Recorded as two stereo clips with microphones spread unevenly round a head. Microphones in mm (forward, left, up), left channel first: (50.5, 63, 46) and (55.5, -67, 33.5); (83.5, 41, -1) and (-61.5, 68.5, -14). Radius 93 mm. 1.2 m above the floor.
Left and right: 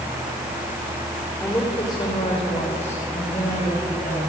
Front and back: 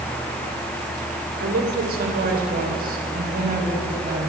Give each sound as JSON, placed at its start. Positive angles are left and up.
{"t": 1.4, "sound": "a woman speaking", "azimuth_deg": 170, "distance_m": 3.0}